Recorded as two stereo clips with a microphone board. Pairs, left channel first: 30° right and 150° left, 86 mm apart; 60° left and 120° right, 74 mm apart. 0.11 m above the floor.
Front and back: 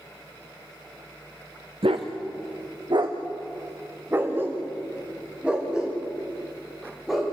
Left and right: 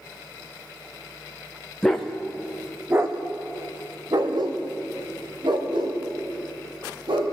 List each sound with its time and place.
1.8 s a dog barking: 145° left, 3 m; by 7.3 s 120° right, 8 m